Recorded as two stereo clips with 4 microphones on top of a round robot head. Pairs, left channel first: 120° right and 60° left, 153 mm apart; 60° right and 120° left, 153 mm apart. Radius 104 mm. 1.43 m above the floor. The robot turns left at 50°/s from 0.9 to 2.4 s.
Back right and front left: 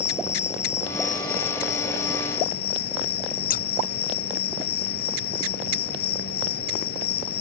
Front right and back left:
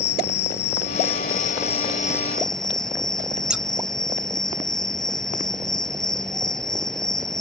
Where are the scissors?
155° right.